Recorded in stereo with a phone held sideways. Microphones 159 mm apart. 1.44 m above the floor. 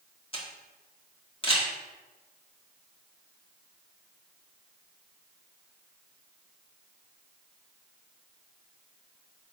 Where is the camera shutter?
35° left (ahead or behind), 1.8 m.